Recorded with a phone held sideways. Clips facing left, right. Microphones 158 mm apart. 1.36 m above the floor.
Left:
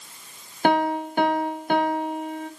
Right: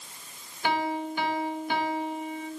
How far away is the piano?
About 0.9 m.